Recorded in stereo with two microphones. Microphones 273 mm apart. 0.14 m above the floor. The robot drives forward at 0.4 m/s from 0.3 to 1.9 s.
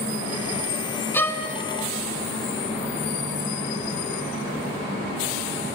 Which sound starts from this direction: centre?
A violin, at 1.1 s.